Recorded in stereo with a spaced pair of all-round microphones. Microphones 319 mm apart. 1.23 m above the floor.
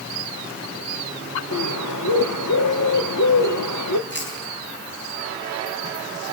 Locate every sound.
1.5 s a bird: 70° left (ahead or behind), 1.2 m
4.1 s chewing: 35° left (ahead or behind), 10 m